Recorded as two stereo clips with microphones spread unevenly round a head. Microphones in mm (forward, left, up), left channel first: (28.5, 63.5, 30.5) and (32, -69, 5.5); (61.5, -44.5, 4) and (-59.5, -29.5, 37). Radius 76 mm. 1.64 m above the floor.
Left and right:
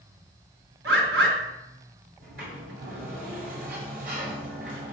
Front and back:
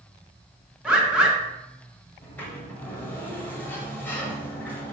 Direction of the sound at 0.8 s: 115° right.